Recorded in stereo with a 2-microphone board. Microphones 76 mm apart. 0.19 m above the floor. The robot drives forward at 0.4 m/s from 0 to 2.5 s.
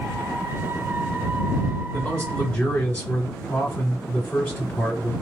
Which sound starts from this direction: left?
A man speaking, at 1.9 s.